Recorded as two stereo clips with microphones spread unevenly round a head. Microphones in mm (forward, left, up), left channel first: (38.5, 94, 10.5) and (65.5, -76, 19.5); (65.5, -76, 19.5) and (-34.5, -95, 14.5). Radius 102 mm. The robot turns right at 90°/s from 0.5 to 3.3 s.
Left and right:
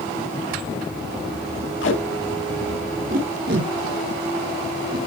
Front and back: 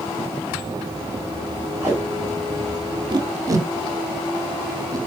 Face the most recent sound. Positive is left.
turn(degrees=-115)